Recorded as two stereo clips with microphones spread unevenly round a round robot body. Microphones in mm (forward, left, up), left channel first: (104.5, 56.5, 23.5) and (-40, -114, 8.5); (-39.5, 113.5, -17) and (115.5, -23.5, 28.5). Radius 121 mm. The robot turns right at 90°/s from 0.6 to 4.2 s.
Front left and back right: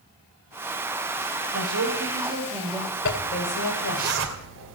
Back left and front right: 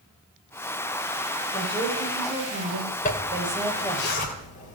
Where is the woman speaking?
160° right, 3.5 m; by 4.0 s 65° left, 3.5 m.